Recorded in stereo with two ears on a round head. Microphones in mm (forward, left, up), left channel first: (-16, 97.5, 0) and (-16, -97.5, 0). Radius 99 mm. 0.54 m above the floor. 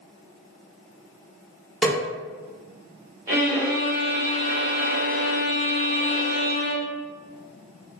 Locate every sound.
1.8 s a snare drum: centre (ahead or behind), 0.8 m
3.3 s a violin: 15° right (ahead or behind), 1.1 m